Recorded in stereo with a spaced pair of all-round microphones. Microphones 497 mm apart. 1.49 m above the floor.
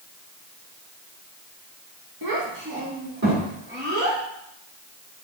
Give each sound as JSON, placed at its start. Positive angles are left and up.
{"t": 2.2, "sound": "a child speaking", "side_deg": -45, "distance_m": 1.4}